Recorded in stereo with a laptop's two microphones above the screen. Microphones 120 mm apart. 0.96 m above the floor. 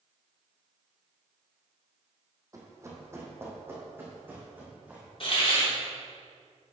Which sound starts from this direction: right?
Running footsteps, at 2.5 s.